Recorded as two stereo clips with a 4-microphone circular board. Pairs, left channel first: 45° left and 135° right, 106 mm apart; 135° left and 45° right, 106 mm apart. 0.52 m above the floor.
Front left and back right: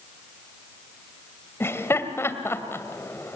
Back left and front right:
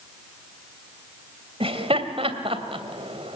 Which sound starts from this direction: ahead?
Laughter, at 1.6 s.